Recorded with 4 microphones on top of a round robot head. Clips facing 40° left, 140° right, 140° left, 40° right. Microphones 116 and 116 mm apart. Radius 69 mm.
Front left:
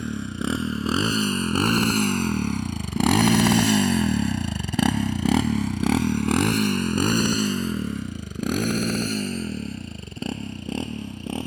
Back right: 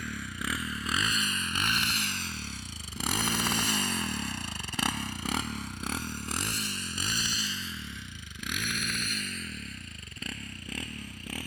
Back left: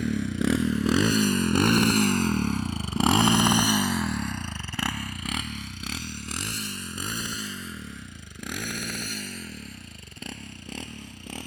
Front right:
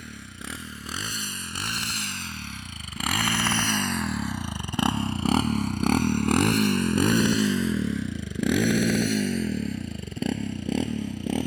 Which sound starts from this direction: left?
A motorcycle, at 0.0 s.